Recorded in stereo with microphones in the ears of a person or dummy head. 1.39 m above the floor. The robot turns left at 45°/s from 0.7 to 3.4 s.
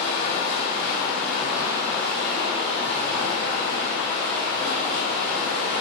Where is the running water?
35° left, 1.3 m; by 5.8 s 90° right, 1.3 m.